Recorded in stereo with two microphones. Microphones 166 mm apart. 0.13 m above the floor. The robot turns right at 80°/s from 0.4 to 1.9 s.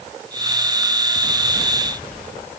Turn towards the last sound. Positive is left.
No sound to turn to.